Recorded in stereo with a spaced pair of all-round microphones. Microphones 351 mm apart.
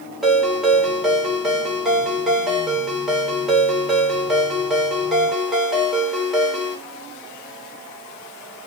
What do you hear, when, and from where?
0.2 s a ringtone: centre (ahead or behind), 1.8 m